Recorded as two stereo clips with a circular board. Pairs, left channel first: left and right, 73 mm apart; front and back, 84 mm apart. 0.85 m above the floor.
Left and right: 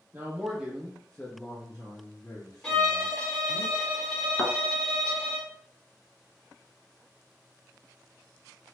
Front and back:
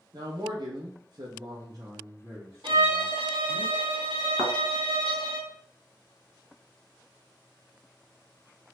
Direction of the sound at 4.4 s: 175° right.